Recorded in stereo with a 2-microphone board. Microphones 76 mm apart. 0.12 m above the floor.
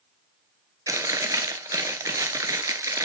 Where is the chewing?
45° right (ahead or behind), 0.6 m.